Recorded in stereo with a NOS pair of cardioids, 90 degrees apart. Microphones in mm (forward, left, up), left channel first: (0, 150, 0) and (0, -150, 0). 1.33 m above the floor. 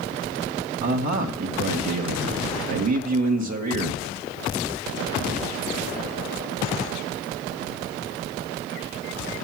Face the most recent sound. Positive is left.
turn(degrees=-65)